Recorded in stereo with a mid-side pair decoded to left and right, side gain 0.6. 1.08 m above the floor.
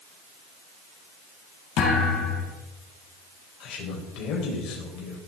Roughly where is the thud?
Ahead left.